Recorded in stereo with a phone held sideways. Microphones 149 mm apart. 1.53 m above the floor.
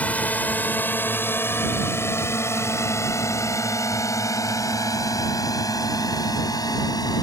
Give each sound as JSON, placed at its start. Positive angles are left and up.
{"t": 0.0, "sound": "a drone", "side_deg": 10}